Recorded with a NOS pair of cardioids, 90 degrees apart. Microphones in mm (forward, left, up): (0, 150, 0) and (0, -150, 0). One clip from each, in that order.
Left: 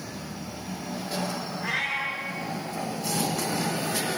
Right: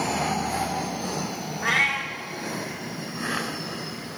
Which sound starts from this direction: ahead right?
A cat meowing, at 1.6 s.